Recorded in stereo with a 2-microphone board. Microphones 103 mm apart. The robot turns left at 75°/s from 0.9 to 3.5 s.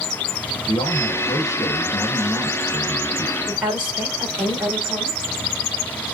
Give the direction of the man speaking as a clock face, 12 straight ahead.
9 o'clock.